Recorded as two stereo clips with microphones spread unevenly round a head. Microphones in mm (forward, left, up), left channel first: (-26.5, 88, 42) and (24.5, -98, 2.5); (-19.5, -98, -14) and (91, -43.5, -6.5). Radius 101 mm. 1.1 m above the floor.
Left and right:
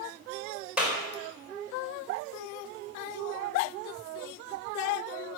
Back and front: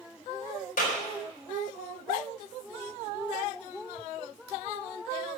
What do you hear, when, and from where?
0.8 s a clap: 160° right, 4.5 m